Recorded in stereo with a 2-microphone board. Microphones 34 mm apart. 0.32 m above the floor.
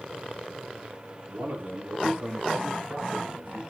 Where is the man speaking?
80° right, 8.5 m; by 3.6 s 70° right (ahead or behind), 5.5 m.